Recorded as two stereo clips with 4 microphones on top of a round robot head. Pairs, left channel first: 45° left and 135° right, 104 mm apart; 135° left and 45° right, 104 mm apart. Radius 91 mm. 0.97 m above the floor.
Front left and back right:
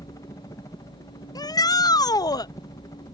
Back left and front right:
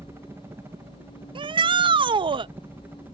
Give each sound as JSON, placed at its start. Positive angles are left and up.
{"t": 0.0, "sound": "a helicopter", "azimuth_deg": 5}
{"t": 1.4, "sound": "a shout", "azimuth_deg": -5}